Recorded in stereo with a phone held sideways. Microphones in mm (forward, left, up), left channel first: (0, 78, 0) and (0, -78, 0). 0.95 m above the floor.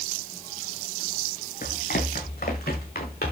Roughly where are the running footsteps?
Left.